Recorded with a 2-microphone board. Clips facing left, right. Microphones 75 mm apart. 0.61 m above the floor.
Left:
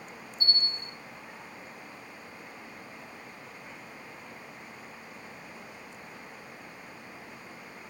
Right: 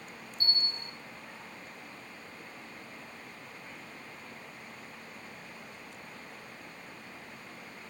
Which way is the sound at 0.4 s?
75° right (ahead or behind).